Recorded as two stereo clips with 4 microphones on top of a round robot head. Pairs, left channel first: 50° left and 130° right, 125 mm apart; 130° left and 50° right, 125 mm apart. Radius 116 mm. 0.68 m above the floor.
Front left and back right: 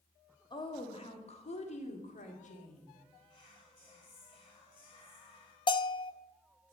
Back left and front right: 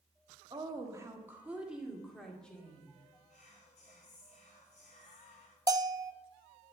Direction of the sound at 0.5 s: Straight ahead.